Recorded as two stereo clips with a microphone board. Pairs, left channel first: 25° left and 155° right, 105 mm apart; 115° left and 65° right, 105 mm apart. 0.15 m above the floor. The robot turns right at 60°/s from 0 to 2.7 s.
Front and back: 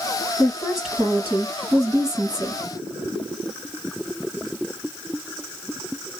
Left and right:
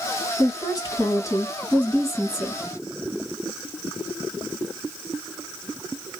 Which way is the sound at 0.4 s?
95° left.